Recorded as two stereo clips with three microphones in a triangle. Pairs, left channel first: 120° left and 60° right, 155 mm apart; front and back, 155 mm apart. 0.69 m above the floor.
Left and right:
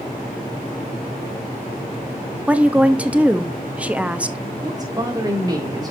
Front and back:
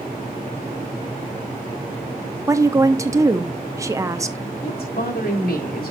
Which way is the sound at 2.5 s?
130° right.